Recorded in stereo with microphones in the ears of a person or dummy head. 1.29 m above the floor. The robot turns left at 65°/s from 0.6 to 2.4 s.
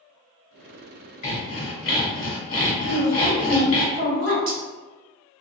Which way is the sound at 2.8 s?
50° right (ahead or behind).